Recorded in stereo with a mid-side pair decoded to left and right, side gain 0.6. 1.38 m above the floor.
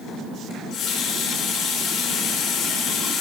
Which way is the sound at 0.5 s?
55° left.